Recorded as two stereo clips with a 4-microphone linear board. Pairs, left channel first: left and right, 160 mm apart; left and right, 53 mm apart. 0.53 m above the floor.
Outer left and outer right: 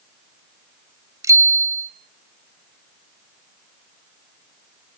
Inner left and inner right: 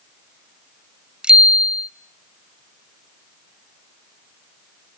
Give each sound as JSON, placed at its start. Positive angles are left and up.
{"t": 1.2, "sound": "a bicycle bell", "side_deg": -20, "distance_m": 2.0}